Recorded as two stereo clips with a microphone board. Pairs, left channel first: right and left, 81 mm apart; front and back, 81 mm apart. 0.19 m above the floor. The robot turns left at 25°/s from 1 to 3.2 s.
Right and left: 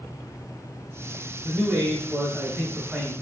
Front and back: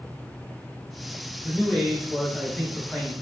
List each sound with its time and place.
1.4 s a man speaking: 105° left, 1.4 m; by 3.1 s 65° left, 1.4 m